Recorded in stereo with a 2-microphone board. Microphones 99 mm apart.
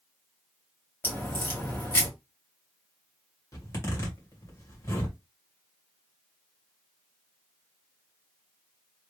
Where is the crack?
25° left (ahead or behind), 2.5 m.